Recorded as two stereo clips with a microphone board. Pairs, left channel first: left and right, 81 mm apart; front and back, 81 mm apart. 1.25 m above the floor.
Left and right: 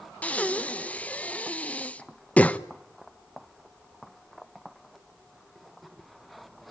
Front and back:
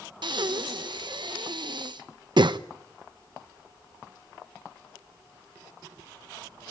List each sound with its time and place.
0.2 s breathing: 160° left, 0.9 m